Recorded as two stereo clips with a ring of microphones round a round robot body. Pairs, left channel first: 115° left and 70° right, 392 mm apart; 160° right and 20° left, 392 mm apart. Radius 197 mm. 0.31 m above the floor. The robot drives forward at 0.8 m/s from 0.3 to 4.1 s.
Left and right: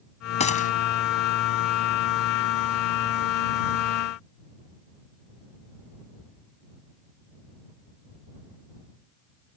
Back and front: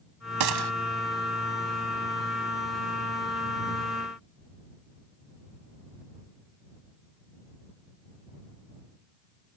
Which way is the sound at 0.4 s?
40° left.